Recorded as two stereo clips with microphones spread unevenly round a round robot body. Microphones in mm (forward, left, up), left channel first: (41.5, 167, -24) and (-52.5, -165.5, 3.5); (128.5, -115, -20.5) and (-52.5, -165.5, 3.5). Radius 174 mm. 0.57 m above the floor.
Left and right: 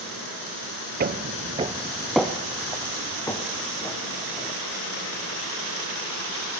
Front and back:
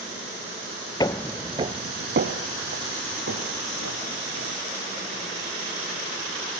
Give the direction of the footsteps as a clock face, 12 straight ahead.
2 o'clock.